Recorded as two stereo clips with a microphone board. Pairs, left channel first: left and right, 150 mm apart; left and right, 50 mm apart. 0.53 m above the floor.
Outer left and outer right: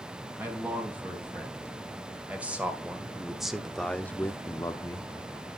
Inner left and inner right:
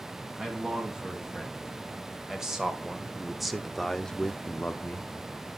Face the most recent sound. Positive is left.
turn(degrees=25)  # may be behind; listen again after turning